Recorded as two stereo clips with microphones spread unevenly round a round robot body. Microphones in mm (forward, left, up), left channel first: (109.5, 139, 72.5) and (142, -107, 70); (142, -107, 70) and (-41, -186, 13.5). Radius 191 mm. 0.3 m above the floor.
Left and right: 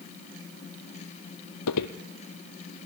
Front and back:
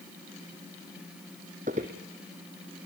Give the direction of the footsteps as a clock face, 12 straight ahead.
8 o'clock.